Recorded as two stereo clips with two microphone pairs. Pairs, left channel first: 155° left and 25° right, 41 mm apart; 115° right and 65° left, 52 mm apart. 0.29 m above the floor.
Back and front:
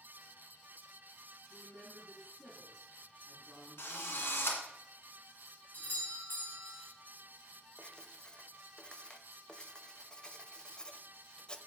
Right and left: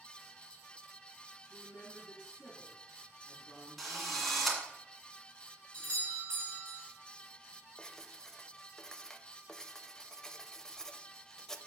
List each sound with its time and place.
1.4 s a woman speaking: 40° right, 3.5 m
3.8 s a drill: 160° left, 1.8 m
5.7 s a doorbell: straight behind, 3 m
7.8 s writing: 175° right, 0.6 m